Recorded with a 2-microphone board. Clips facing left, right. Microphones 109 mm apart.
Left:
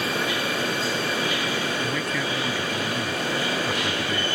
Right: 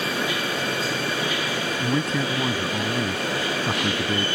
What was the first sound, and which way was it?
A man speaking, 30° right (ahead or behind).